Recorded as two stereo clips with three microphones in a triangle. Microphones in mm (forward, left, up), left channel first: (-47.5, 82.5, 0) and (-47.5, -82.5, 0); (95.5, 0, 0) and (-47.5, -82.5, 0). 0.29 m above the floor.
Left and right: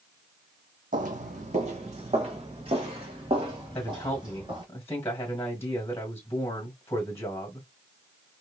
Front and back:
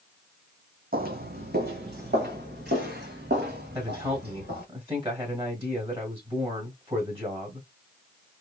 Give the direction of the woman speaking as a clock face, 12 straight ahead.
7 o'clock.